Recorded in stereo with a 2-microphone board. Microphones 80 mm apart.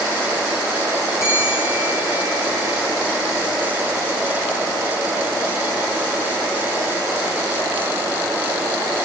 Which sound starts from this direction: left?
A bell, at 1.2 s.